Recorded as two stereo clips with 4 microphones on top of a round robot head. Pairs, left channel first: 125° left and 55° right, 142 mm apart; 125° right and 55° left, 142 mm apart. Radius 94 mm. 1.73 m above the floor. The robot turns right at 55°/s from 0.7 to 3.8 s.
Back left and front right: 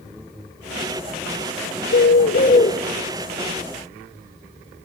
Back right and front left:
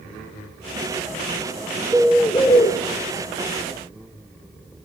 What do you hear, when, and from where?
1.9 s a bird: 140° left, 1.4 m; by 2.7 s 175° right, 1.4 m